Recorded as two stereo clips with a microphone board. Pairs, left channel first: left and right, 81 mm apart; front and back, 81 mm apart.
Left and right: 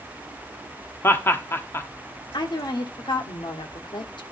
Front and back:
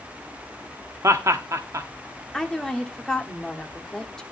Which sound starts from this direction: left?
A woman speaking, at 2.3 s.